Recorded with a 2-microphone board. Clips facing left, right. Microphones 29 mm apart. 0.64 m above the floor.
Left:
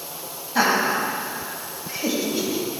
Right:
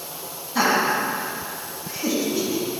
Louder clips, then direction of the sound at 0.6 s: Even; 20° left (ahead or behind).